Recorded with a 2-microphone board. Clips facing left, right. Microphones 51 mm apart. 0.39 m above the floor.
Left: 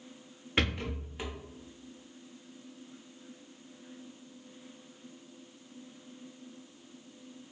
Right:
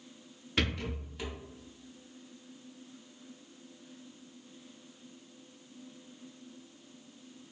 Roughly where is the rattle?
Left.